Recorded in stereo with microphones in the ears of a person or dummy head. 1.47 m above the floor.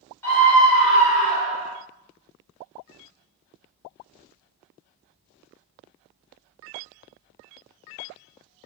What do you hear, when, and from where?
0.2 s a scream: 10° left (ahead or behind), 1.1 m; by 1.8 s 5° right (ahead or behind), 1.8 m